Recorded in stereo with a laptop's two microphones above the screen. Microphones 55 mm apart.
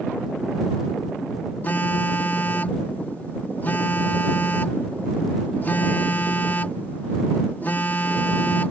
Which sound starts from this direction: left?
A phone buzzing, at 1.6 s.